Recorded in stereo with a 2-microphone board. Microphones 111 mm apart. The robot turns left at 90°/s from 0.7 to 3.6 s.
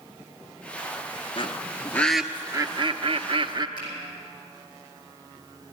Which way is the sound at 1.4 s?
55° left (ahead or behind).